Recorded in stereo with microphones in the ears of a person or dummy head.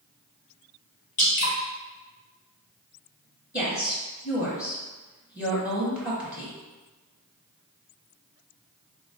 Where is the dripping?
45° left (ahead or behind), 1.3 m.